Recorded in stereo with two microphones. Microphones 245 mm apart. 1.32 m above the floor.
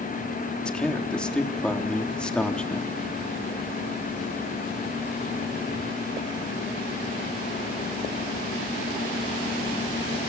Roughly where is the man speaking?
Centre.